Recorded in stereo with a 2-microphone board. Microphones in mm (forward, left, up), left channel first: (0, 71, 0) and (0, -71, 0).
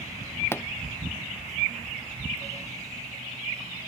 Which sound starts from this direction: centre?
A pop, at 0.5 s.